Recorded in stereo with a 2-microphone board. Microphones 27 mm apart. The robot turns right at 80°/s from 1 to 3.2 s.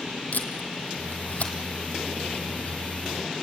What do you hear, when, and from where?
0.3 s tape being pulled: 75° left (ahead or behind), 2.5 m; by 1.5 s 50° left (ahead or behind), 2.5 m